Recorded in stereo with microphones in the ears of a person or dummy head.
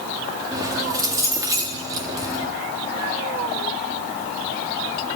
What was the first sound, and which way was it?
Keys jangling, 15° right (ahead or behind).